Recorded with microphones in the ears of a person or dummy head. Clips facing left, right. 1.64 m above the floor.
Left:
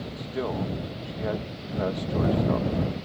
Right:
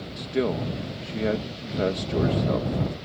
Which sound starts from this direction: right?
A man speaking, at 0.2 s.